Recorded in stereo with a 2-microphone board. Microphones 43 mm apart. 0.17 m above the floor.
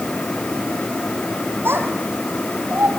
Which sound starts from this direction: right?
A child speaking, at 1.6 s.